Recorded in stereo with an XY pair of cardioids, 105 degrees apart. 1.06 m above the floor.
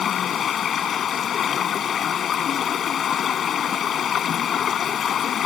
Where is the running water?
55° left.